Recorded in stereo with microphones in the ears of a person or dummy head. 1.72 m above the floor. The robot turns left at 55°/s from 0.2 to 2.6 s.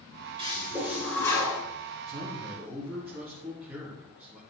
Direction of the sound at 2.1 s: 45° right (ahead or behind).